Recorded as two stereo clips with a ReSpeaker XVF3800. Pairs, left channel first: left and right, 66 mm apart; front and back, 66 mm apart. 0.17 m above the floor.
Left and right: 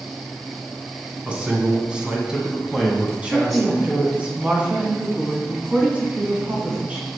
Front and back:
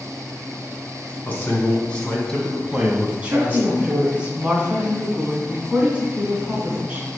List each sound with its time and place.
1.2 s a man speaking: 30° right, 1.7 m; by 4.2 s 165° left, 1.8 m
3.2 s a woman speaking: 130° right, 1.7 m